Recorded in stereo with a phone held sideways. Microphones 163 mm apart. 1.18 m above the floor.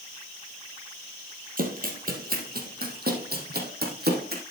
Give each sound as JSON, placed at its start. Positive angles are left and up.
{"t": 1.6, "sound": "running footsteps", "side_deg": -60, "distance_m": 2.5}